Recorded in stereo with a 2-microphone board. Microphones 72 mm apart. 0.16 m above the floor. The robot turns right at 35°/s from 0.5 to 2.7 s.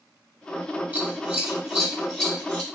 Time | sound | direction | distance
0.9 | scissors | 25° right (ahead or behind) | 1.2 m